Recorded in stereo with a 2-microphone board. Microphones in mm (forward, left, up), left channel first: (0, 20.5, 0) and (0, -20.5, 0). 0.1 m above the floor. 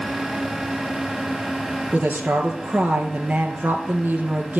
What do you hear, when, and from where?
1.9 s a woman speaking: 45° right (ahead or behind), 1.7 m